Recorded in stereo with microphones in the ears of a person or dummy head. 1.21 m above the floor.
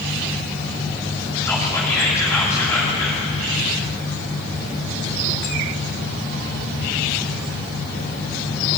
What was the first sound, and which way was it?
Whispering, 15° left (ahead or behind).